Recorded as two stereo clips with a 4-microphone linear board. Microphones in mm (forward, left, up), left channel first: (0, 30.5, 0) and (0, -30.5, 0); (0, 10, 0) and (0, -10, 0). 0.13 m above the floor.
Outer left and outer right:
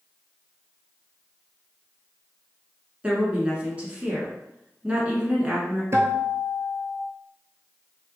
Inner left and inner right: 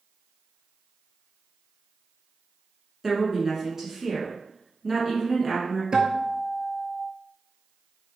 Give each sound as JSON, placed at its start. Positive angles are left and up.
{"t": 3.0, "sound": "a woman speaking", "side_deg": -20, "distance_m": 1.1}
{"t": 5.9, "sound": "a guitar", "side_deg": -45, "distance_m": 0.6}